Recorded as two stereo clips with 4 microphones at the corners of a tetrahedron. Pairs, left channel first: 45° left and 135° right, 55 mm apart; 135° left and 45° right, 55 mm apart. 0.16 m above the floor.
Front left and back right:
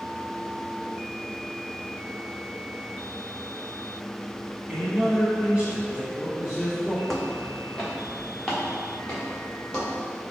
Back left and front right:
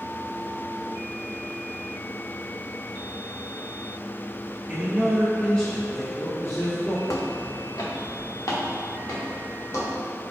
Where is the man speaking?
90° right, 1.7 m; by 7.0 s 155° left, 2.5 m.